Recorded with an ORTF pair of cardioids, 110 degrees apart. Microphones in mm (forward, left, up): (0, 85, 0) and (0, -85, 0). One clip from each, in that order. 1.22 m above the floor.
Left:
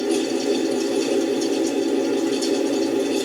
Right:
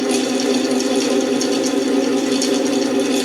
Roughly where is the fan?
Ahead right.